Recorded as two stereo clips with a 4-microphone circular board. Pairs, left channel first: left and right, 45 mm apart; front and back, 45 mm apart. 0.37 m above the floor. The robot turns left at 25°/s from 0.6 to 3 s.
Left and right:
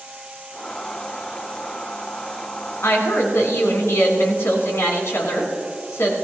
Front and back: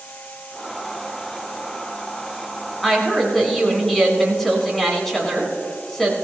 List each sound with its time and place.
2.8 s a woman speaking: 90° left, 3.5 m; by 6.1 s 85° left, 3.5 m